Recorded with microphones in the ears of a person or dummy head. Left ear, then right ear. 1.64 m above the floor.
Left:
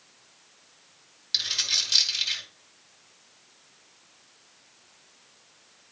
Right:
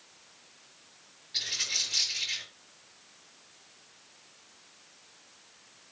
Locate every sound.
1.3 s a dropped coin: 70° left (ahead or behind), 5.5 m